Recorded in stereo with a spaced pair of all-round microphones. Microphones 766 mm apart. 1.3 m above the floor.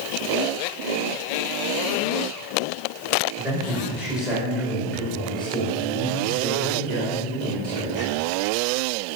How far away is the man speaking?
About 6 m.